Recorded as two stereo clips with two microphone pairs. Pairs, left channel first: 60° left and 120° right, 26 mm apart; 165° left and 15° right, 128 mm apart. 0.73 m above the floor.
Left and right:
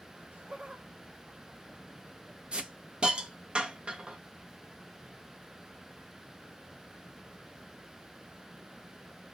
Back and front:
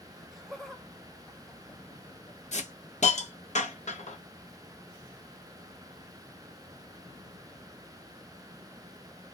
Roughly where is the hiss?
Behind.